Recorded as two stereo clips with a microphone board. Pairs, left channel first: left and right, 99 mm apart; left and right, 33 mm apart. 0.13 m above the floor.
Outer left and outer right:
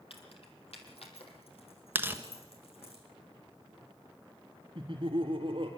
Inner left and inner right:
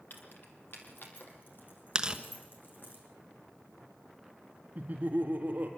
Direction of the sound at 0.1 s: 65° left (ahead or behind).